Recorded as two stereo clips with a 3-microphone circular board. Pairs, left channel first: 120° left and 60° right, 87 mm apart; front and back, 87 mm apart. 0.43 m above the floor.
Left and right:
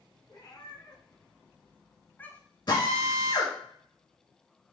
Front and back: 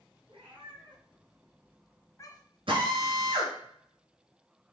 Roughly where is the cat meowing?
Behind.